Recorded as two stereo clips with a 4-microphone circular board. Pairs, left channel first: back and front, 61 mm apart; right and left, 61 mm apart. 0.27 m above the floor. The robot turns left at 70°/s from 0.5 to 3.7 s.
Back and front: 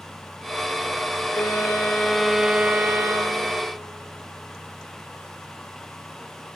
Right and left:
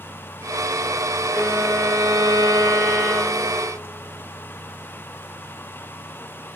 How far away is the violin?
About 3 m.